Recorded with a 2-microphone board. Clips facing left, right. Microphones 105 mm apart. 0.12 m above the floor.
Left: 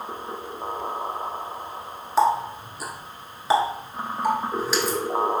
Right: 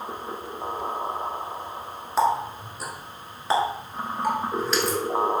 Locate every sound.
2.2 s a running tap: 5° left (ahead or behind), 0.9 m